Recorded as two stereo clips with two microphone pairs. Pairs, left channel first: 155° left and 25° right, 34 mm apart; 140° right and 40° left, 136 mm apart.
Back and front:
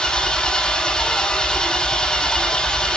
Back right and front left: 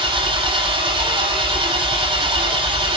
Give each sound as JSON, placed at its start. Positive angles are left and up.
{"t": 0.0, "sound": "an engine running", "azimuth_deg": 90, "distance_m": 6.5}